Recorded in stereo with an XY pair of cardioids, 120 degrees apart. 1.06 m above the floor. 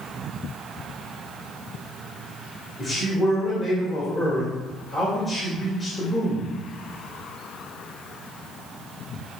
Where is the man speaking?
30° left, 1.8 m.